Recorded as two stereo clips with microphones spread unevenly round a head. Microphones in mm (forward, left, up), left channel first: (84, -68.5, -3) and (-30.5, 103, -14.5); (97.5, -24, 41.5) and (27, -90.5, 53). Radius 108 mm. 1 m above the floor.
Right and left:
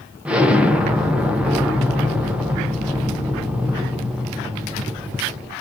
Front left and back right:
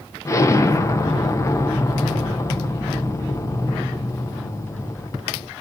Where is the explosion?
45° left, 0.5 m.